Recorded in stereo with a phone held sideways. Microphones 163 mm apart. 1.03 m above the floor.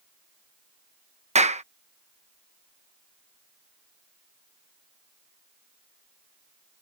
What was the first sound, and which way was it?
A clap, 45° right (ahead or behind).